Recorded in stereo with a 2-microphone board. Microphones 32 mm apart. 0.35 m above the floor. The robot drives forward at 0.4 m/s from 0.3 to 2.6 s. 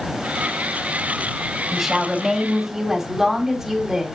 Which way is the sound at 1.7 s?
10° right (ahead or behind).